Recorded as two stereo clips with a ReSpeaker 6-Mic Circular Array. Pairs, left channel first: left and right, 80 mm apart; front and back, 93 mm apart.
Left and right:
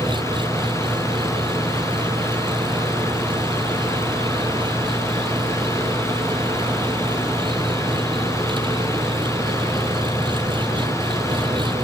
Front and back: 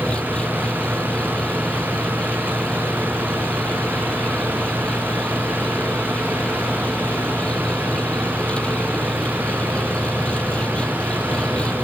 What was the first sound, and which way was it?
An engine running, 80° right.